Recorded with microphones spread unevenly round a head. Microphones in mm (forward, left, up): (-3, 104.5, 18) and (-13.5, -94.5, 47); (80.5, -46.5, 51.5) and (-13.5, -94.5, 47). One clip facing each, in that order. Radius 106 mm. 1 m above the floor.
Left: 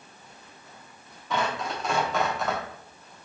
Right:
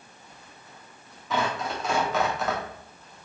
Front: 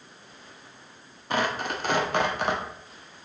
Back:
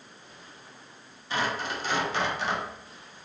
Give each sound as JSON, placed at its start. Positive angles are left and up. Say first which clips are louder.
{"t": 1.3, "sound": "tearing paper", "louder": "right 1 dB, front 3 dB", "azimuth_deg": -5, "distance_m": 0.8}